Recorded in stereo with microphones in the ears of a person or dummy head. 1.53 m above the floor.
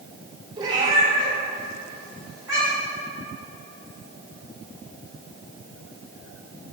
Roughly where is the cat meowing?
Right.